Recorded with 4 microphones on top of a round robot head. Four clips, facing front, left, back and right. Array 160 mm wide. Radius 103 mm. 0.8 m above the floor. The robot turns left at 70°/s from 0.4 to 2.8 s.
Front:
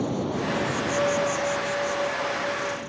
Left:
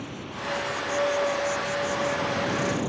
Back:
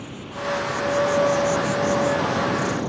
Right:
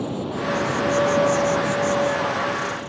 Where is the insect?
45° right; by 2.9 s 145° left.